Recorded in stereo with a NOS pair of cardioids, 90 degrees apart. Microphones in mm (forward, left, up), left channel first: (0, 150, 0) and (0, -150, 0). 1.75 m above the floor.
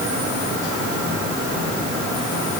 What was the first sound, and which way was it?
Only background noise.